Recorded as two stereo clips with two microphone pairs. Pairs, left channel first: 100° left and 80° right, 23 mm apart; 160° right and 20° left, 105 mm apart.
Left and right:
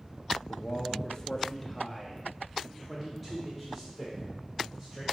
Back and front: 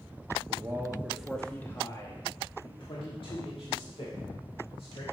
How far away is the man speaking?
About 0.8 m.